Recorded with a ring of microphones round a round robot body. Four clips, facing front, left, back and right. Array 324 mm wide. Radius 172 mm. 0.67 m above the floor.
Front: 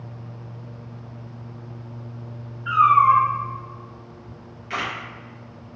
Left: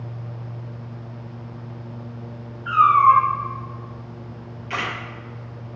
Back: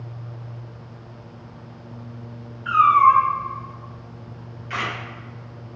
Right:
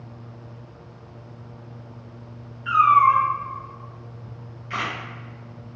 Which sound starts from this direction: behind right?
A cat meowing, at 2.6 s.